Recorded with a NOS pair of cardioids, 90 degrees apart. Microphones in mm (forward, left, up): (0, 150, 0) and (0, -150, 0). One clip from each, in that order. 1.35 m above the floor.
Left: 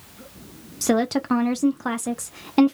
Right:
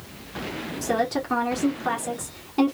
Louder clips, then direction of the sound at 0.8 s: Left 3 dB; 50° left.